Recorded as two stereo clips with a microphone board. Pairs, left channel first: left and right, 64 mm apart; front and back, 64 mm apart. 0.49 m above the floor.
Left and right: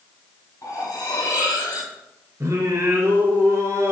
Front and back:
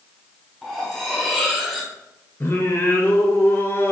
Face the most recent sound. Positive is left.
turn(degrees=-55)